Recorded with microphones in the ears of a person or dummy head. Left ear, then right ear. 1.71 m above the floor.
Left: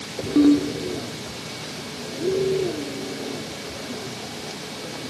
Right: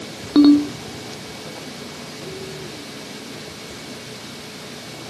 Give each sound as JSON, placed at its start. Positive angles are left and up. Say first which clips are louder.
{"t": 0.3, "sound": "a ringtone", "louder": "right 4 dB", "side_deg": -50, "distance_m": 1.8}